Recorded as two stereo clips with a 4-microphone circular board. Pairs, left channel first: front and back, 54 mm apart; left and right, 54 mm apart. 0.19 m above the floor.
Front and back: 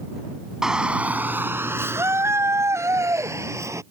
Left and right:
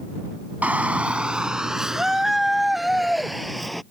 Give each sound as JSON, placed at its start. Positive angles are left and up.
{"t": 0.6, "sound": "a shout", "azimuth_deg": -110}